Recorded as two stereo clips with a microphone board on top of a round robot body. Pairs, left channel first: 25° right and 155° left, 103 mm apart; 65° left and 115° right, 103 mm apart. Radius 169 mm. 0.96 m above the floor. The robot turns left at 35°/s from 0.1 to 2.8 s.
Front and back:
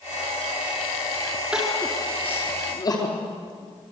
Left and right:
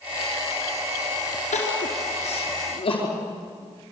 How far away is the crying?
About 4.5 m.